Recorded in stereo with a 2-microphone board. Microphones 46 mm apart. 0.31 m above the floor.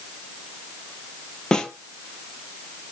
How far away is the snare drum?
About 1.3 m.